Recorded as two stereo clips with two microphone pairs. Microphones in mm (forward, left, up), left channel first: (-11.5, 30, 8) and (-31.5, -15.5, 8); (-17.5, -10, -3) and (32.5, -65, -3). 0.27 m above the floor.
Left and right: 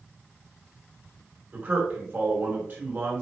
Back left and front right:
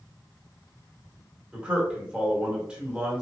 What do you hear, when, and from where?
1.5 s a man speaking: 110° right, 2.0 m